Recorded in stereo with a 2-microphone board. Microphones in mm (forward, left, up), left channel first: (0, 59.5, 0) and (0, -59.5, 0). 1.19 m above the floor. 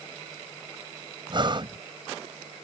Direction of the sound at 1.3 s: 40° right (ahead or behind).